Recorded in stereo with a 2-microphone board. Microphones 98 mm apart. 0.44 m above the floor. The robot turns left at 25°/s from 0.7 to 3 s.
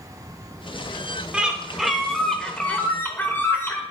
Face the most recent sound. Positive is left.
turn(degrees=155)